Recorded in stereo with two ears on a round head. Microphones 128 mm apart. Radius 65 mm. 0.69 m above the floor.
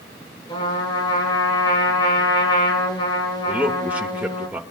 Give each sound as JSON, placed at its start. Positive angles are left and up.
{"t": 0.5, "sound": "a trumpet", "side_deg": 35, "distance_m": 4.5}
{"t": 3.5, "sound": "a man speaking", "side_deg": -10, "distance_m": 2.0}